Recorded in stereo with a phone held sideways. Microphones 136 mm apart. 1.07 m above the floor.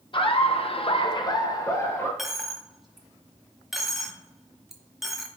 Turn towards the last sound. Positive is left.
turn(degrees=0)  # may be behind; listen again after turning